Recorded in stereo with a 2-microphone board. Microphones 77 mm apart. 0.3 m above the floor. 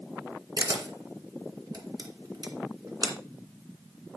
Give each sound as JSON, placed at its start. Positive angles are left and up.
{"t": 0.6, "sound": "a camera shutter", "side_deg": -60, "distance_m": 1.9}